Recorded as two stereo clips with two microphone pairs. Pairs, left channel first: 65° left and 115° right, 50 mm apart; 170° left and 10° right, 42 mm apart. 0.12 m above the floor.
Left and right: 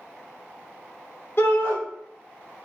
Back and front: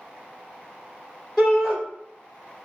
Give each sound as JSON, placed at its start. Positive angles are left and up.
{"t": 1.4, "sound": "a shout", "azimuth_deg": 80, "distance_m": 1.7}